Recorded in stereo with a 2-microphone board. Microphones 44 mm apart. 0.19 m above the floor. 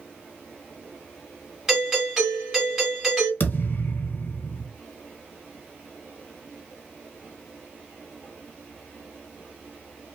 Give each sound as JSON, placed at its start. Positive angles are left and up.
{"t": 1.7, "sound": "a doorbell", "side_deg": -5, "distance_m": 1.9}
{"t": 3.4, "sound": "a thud", "side_deg": 50, "distance_m": 0.8}